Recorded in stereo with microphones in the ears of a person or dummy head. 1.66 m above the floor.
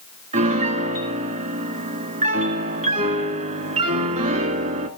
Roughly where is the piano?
Right.